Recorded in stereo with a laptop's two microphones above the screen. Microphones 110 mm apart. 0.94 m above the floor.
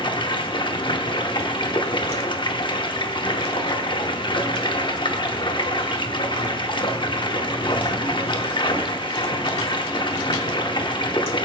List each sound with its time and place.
0.0 s running water: 45° left (ahead or behind), 0.8 m